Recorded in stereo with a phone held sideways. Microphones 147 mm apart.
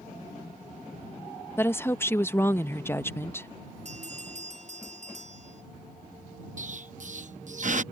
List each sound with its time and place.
1.6 s a woman speaking: 15° left (ahead or behind)
3.9 s a bell: 50° right (ahead or behind)
6.6 s an explosion: 60° right (ahead or behind)